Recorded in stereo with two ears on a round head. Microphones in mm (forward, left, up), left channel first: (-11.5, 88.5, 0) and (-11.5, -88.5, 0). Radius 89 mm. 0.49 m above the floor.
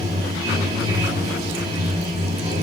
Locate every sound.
0.0 s running water: 30° right (ahead or behind), 4.5 m